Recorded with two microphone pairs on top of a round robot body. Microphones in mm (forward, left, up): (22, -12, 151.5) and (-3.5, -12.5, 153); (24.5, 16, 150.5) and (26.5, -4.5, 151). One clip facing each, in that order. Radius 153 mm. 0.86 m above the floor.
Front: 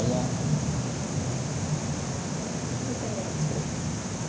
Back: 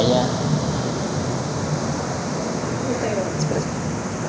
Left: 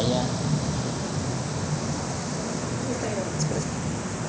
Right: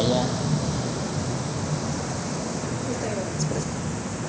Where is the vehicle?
165° right; by 4.3 s 175° right.